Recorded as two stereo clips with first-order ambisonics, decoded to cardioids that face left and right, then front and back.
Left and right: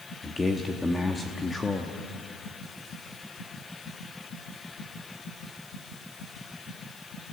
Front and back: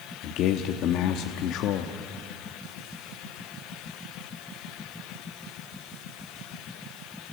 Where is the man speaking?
15° left, 1.1 m.